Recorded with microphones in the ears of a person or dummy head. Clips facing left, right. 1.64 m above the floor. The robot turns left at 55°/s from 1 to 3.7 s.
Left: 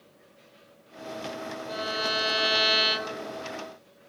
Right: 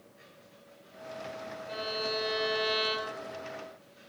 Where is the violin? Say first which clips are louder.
Left 2 dB; 125° left, 0.7 m; by 3.4 s 30° left, 0.7 m.